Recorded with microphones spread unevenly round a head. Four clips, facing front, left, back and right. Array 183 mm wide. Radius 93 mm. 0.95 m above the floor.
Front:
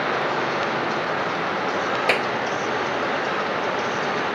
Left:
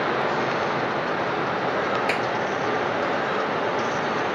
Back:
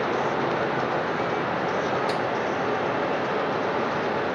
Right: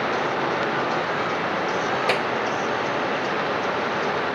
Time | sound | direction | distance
2.1 | a clap | 25° right | ?